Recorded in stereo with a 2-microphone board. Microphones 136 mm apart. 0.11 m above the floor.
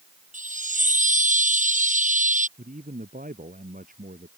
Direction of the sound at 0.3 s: 65° right (ahead or behind).